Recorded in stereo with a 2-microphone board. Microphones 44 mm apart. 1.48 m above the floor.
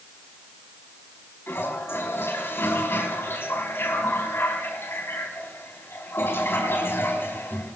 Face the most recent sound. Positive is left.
turn(degrees=65)  # may be behind; listen again after turning